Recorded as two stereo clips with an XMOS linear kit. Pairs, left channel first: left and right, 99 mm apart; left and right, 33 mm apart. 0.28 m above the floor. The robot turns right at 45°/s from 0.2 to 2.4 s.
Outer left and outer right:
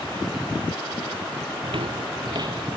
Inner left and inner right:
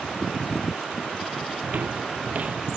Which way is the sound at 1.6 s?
60° right (ahead or behind).